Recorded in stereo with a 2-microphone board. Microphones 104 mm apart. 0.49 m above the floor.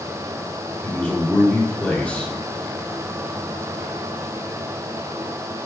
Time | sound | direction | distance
0.8 | a man speaking | 10° left (ahead or behind) | 1.3 m